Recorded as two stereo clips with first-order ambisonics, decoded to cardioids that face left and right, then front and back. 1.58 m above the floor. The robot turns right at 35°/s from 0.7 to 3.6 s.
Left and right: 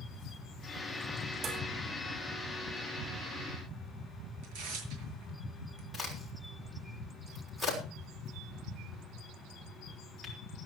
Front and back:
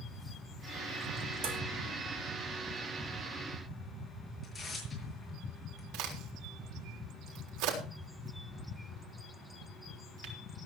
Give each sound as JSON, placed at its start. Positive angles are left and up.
{"t": 1.4, "sound": "dishes clattering", "azimuth_deg": -155, "distance_m": 4.0}
{"t": 4.4, "sound": "tearing paper", "azimuth_deg": -85, "distance_m": 6.5}
{"t": 5.9, "sound": "a crack", "azimuth_deg": -175, "distance_m": 6.0}